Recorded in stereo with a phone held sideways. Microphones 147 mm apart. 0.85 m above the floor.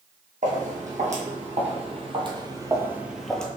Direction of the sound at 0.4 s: 60° right (ahead or behind).